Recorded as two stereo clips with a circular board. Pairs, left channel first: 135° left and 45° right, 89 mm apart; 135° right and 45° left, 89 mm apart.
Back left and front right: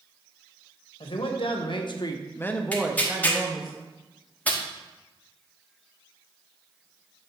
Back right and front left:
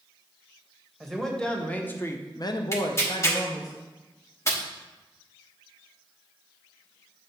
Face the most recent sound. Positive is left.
turn(degrees=-160)